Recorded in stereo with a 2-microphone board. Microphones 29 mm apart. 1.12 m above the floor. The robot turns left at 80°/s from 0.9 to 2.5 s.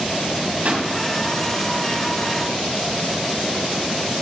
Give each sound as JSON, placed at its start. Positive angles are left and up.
{"t": 0.7, "sound": "a pop", "side_deg": -55, "distance_m": 2.0}